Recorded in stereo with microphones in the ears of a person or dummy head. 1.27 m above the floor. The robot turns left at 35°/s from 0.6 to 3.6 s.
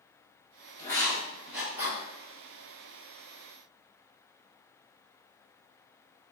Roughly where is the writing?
Centre.